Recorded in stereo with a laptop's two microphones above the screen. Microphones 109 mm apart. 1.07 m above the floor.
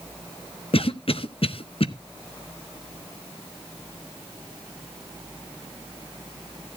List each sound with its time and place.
0.7 s a cough: 60° left (ahead or behind), 0.7 m